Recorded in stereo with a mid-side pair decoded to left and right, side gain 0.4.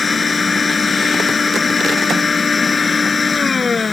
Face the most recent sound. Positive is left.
turn(degrees=35)